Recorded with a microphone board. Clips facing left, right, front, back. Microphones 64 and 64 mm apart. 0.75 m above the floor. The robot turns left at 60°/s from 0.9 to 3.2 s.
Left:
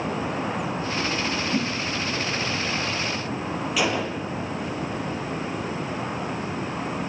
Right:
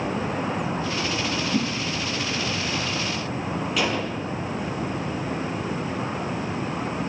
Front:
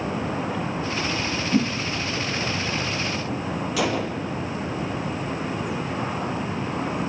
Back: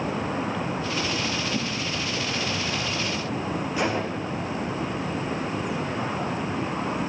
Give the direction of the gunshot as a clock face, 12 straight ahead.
12 o'clock.